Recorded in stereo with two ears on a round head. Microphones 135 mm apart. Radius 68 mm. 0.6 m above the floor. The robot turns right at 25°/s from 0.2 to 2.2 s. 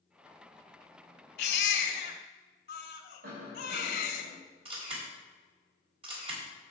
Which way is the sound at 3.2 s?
65° right (ahead or behind).